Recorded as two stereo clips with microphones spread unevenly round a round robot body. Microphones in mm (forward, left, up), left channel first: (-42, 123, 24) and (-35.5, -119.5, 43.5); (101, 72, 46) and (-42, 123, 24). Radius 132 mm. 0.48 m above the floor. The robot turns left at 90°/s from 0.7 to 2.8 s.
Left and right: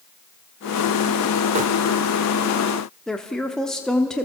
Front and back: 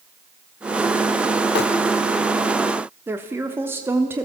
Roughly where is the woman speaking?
Behind.